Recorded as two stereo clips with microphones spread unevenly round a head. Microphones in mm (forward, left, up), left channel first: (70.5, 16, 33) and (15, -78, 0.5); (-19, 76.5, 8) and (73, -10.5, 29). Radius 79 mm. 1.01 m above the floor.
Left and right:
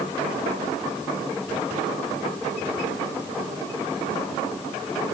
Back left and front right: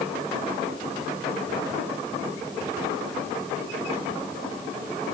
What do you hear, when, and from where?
Only background noise.